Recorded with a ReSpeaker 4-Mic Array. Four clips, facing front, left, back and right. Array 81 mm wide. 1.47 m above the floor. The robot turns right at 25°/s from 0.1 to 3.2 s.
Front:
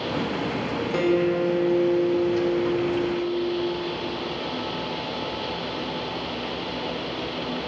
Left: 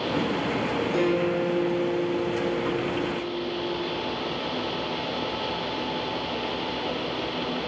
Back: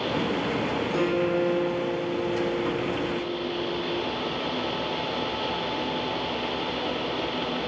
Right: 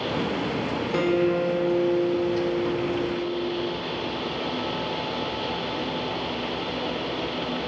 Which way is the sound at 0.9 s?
40° right.